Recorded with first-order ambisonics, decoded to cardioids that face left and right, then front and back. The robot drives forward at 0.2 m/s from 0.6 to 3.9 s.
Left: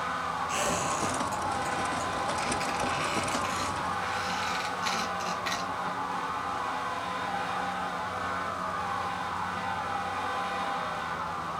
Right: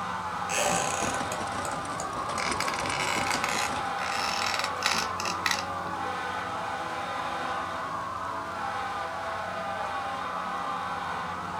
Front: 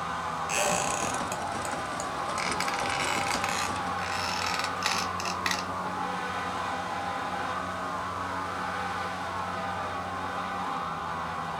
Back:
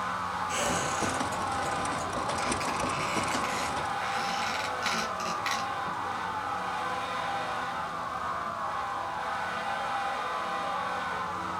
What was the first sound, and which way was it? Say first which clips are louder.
A squeak: right 4 dB, front 4 dB; 30° right.